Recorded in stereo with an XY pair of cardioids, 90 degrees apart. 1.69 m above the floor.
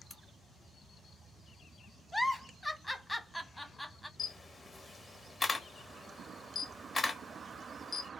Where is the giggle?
10° left, 0.7 m.